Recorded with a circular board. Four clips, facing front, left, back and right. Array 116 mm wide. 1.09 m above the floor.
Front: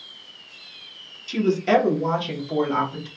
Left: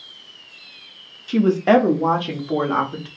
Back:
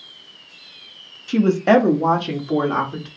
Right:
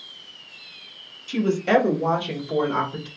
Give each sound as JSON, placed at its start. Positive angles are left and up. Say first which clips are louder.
{"t": 1.3, "sound": "a woman speaking", "louder": "left 5 dB, back 4 dB", "azimuth_deg": 145, "distance_m": 0.9}